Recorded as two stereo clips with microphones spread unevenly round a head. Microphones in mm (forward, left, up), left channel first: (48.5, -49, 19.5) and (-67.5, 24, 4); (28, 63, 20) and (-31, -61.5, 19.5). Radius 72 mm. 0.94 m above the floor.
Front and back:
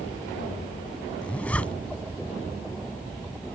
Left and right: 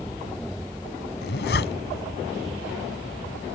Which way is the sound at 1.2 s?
50° left.